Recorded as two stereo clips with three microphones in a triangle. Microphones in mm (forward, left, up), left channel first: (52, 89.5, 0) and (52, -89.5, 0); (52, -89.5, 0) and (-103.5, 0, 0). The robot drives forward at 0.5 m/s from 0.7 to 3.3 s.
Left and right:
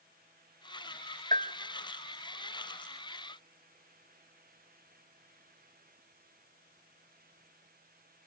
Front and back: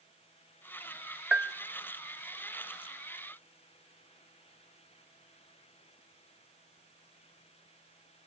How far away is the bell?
About 0.7 m.